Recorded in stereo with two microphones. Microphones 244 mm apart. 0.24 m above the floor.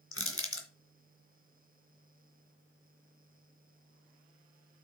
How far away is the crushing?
About 2 m.